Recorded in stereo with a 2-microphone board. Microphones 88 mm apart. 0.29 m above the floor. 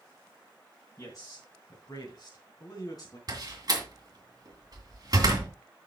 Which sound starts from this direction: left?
A man speaking, at 1.0 s.